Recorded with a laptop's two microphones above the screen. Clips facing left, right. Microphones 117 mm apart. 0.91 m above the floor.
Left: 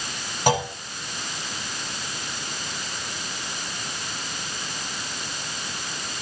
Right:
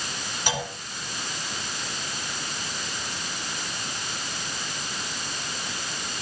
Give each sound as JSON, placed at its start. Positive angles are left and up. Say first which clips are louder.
{"t": 0.5, "sound": "a clunk", "louder": "left 9 dB", "side_deg": 55, "distance_m": 3.0}